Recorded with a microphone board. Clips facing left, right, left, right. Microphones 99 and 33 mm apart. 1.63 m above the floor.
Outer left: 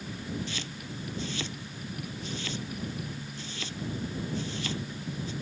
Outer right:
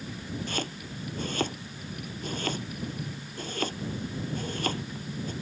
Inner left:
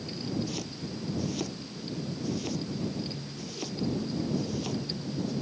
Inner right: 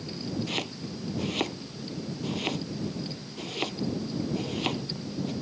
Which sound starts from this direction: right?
Chopping, at 0.5 s.